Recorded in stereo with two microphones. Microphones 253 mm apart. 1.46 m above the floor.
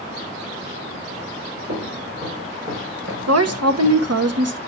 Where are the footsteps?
50° right (ahead or behind), 5 m.